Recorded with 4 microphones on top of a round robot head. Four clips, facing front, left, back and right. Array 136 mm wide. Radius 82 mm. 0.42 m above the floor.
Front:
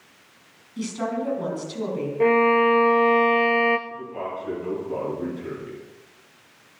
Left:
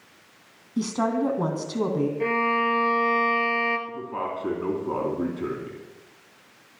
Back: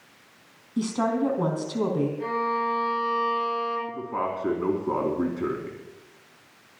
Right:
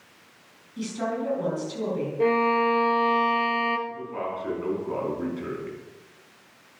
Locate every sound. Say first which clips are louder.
0.8 s a woman speaking: left 5 dB, back 3 dB; 130° left, 3.5 m
2.2 s a violin: right 6 dB, front 9 dB; 25° right, 1.5 m
3.9 s a man speaking: left 1 dB, back 3 dB; 145° left, 4 m